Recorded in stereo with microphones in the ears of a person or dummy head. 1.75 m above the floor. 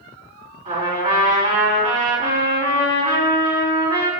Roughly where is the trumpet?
Right.